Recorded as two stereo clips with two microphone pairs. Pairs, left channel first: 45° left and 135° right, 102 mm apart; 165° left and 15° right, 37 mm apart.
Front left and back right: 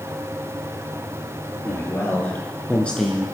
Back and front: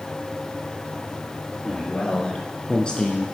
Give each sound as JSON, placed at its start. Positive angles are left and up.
{"t": 1.6, "sound": "a man speaking", "azimuth_deg": 100, "distance_m": 3.0}